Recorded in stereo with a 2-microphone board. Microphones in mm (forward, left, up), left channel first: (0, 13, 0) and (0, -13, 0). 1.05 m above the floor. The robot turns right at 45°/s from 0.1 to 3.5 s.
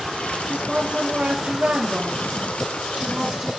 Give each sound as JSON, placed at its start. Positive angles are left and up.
{"t": 0.5, "sound": "a woman speaking", "azimuth_deg": -150, "distance_m": 2.5}